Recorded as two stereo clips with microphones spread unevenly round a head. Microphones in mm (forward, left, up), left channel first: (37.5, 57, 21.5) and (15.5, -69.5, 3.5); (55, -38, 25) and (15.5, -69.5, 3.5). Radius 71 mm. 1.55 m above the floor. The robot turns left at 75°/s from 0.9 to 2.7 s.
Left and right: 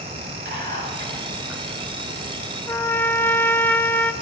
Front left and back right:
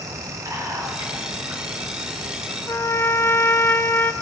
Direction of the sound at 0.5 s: 130° right.